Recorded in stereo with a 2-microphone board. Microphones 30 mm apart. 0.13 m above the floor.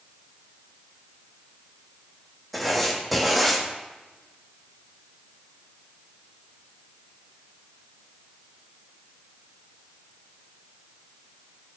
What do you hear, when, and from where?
2.5 s writing: 5° left (ahead or behind), 3 m